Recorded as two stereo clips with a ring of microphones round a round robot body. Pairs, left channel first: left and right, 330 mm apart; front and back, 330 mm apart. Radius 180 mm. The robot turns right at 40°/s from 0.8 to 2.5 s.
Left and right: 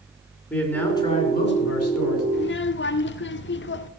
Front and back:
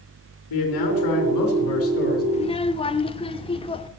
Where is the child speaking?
55° left, 1.0 m; by 3.9 s 65° left, 1.0 m.